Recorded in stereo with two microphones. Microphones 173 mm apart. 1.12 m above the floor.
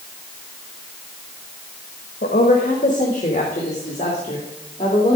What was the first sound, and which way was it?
A woman speaking, 60° left (ahead or behind).